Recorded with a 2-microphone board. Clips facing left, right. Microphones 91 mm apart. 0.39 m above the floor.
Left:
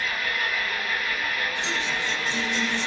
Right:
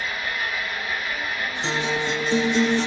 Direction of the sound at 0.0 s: 20° right (ahead or behind).